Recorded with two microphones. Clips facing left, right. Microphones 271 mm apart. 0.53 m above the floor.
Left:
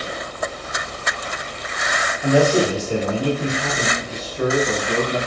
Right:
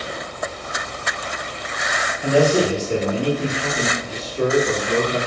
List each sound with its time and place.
2.2 s a man speaking: 5° right (ahead or behind), 1.1 m; by 5.2 s 50° right (ahead or behind), 1.6 m